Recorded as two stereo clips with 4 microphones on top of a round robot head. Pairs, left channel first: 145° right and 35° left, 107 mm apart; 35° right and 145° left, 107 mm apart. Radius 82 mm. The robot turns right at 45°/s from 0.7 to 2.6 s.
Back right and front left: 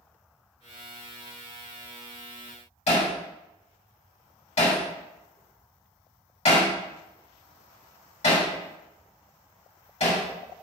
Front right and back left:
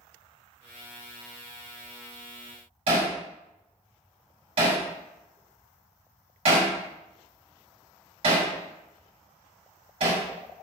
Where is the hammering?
175° right, 3 m.